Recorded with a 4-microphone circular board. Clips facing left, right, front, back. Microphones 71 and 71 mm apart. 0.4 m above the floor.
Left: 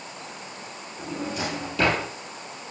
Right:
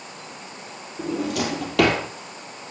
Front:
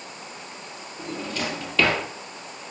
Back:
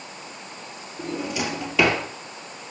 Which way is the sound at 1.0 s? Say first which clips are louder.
Right 5 dB, back 3 dB; 100° right.